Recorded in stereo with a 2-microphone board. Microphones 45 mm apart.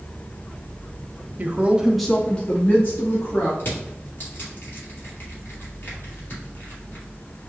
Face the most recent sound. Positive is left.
turn(degrees=45)  # may be behind; listen again after turning